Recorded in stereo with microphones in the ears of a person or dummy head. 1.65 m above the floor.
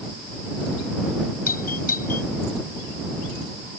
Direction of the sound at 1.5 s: 45° left (ahead or behind).